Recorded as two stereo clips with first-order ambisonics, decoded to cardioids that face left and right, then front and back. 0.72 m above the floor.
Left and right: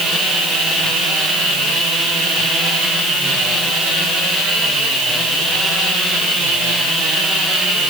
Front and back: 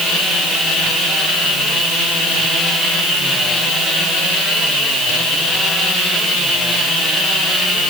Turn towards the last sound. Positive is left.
No sound to turn to.